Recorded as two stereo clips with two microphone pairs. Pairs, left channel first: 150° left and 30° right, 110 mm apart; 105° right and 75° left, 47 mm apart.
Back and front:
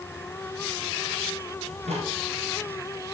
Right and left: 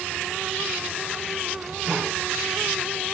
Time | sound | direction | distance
1.7 | a microwave | 25° right | 6.5 m